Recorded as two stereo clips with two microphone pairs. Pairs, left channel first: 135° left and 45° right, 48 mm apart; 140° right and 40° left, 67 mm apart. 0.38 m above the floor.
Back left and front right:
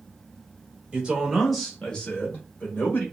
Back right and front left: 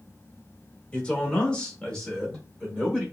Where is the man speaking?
80° right, 1.0 m; by 3.0 s 135° left, 1.3 m.